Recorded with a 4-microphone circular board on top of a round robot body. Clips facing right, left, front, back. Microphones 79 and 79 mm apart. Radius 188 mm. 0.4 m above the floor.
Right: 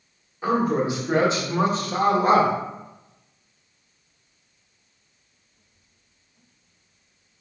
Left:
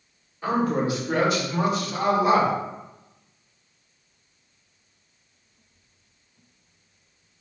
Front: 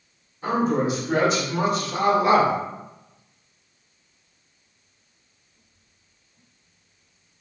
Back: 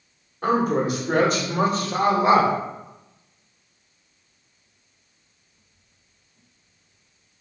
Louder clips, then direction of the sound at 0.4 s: Right 2 dB, back 1 dB; 165° right.